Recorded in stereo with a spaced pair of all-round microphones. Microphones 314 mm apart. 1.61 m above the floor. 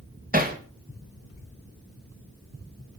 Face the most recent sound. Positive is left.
turn(degrees=-25)  # may be behind; listen again after turning